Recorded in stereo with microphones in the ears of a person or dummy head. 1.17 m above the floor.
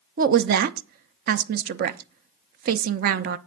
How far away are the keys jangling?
I don't hear keys jangling.